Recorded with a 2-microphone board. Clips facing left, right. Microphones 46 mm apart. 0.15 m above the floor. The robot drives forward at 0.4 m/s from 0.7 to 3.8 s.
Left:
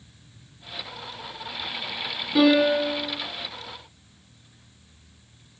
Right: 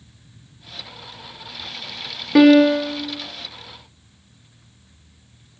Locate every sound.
2.4 s a piano: 75° right (ahead or behind), 0.5 m; by 3.0 s 65° right (ahead or behind), 0.6 m